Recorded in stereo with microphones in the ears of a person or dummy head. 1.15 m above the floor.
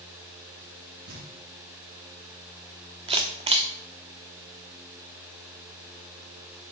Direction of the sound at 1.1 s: 70° right (ahead or behind).